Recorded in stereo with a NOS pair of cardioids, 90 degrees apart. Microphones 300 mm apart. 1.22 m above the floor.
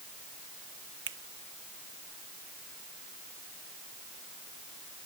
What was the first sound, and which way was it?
A finger snap, 40° right.